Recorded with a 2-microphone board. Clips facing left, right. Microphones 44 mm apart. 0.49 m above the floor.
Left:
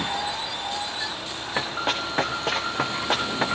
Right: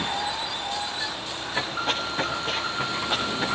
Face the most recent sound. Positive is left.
turn(degrees=80)